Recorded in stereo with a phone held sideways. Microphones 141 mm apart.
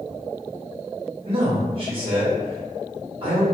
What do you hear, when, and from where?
1.2 s a man speaking: 40° right (ahead or behind), 1.3 m